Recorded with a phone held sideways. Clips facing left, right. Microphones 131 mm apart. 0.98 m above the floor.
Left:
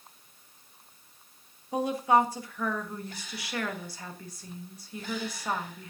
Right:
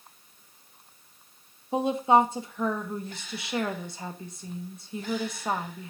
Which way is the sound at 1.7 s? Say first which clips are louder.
Right 3 dB; 25° right (ahead or behind).